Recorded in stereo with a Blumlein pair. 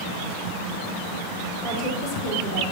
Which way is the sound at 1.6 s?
35° left.